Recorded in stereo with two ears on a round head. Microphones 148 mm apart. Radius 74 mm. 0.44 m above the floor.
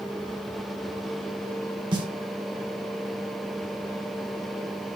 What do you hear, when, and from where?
1.9 s a snare drum: 30° right (ahead or behind), 0.9 m